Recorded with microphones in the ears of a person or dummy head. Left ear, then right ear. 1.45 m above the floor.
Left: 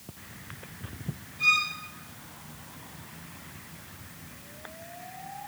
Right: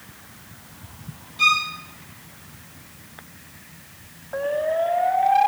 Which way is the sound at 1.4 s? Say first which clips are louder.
Right 5 dB; 40° right (ahead or behind).